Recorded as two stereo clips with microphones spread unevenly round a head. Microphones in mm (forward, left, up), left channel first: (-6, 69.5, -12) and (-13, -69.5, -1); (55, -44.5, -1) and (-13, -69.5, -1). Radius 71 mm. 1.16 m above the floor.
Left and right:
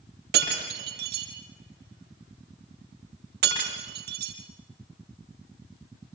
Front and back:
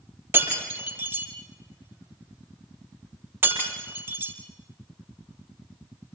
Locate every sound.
0.3 s breaking glass: 100° right, 9 m